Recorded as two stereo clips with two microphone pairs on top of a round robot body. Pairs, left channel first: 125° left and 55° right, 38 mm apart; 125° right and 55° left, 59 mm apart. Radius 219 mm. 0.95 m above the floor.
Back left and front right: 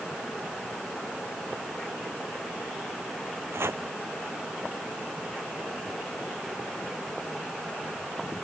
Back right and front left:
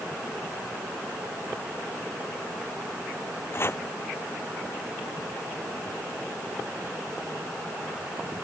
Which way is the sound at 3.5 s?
75° right.